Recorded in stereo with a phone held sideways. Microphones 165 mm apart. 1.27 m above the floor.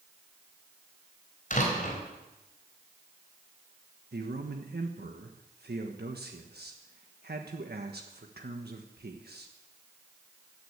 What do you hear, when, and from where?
1.5 s a door slam: 50° left (ahead or behind), 4 m
4.1 s a man speaking: 80° right, 1.4 m